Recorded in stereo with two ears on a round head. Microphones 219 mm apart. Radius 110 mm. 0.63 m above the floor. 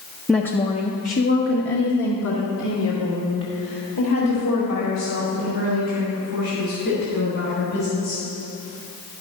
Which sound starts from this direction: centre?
A woman speaking, at 0.3 s.